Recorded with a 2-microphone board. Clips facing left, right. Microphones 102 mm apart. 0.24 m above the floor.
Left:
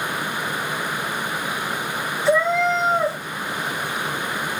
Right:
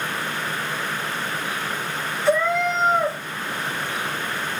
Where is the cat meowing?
30° left (ahead or behind), 2 m.